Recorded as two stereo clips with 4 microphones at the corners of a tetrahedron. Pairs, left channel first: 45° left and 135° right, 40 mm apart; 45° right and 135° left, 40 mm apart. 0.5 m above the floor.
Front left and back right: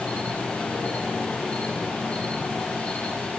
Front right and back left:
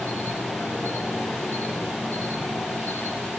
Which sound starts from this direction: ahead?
An insect, at 0.0 s.